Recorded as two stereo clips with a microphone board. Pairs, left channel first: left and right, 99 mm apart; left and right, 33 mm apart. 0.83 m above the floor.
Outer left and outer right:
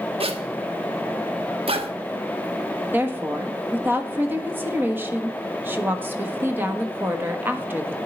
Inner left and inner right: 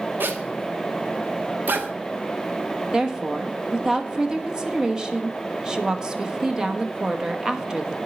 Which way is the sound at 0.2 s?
70° right (ahead or behind).